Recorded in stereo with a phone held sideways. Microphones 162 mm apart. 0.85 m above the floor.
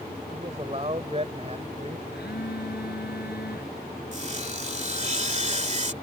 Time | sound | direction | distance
0.3 | a man speaking | 40° right (ahead or behind) | ?
2.1 | a phone buzzing | 85° left | ?
4.1 | sawing | 45° right (ahead or behind) | ?